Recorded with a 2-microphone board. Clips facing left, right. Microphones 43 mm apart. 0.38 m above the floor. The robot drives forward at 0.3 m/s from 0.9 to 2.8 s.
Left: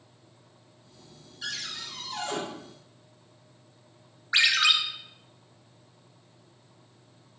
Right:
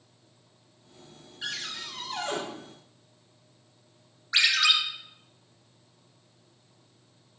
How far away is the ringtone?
About 0.7 m.